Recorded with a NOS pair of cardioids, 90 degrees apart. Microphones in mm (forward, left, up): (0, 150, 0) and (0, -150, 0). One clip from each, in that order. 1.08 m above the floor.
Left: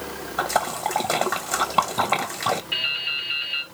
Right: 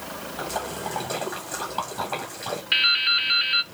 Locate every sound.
0.4 s a splash: 65° left, 1.4 m
2.7 s dripping: 65° right, 0.9 m